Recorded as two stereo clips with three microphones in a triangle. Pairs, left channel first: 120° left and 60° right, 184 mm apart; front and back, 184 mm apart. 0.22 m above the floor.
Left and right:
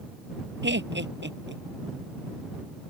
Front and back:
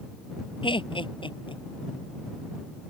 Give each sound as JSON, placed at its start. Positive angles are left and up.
{"t": 0.6, "sound": "laughter", "azimuth_deg": -65}